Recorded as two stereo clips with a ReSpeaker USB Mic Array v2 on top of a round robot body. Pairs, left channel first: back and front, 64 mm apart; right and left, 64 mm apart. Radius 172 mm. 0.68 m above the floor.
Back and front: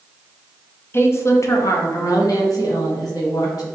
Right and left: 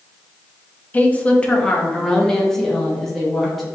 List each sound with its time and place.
0.9 s a woman speaking: 145° right, 0.9 m; by 3.6 s 175° right, 2 m